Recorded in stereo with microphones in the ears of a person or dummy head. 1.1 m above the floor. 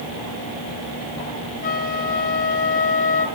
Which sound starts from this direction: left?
A flute, at 1.6 s.